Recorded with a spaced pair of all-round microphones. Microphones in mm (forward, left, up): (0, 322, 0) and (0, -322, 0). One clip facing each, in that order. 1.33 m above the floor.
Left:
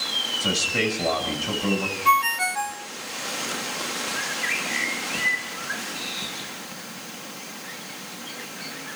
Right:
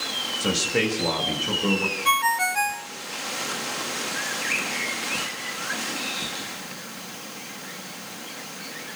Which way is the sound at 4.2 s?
30° left (ahead or behind).